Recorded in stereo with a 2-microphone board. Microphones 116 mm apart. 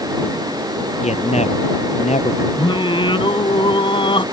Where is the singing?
45° left (ahead or behind).